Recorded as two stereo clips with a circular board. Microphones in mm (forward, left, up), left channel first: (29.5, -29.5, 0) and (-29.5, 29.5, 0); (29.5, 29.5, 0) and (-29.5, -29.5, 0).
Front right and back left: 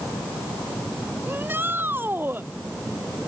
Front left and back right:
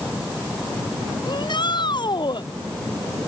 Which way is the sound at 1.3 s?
70° left.